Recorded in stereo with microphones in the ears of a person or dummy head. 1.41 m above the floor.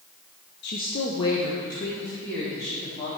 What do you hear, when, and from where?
0.6 s a woman speaking: 55° left (ahead or behind), 0.6 m; by 3.1 s 15° left (ahead or behind), 4 m